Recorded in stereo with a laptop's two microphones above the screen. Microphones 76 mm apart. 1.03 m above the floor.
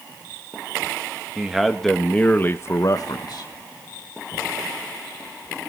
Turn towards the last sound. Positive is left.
turn(degrees=65)  # may be behind; listen again after turning